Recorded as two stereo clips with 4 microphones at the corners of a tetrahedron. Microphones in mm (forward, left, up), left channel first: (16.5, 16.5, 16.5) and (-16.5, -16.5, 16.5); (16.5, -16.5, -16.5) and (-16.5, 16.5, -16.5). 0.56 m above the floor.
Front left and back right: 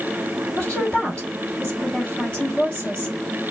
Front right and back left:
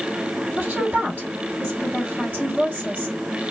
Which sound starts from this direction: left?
A woman speaking, at 0.6 s.